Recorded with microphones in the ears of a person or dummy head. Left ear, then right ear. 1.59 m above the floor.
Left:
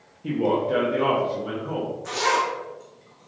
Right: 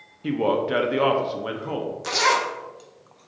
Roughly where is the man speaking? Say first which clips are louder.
Even; right.